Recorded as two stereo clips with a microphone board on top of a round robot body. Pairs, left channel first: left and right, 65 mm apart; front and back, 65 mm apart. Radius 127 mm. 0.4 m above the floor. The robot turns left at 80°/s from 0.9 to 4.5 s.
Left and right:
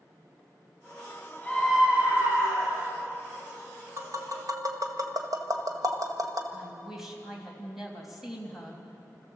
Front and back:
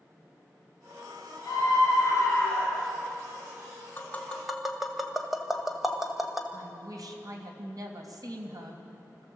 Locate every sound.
1.4 s a scream: 25° left, 8 m; by 2.9 s 95° right, 8 m
4.0 s tapping: 50° right, 1.9 m; by 6.4 s 95° right, 1.9 m
6.5 s a woman speaking: 175° right, 3 m